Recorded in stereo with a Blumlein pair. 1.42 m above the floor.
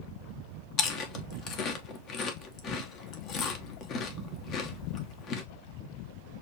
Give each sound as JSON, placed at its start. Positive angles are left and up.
{"t": 0.8, "sound": "chewing", "azimuth_deg": 35, "distance_m": 1.1}